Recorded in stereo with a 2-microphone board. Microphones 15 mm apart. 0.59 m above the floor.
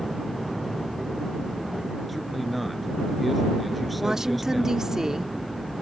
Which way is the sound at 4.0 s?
35° right (ahead or behind).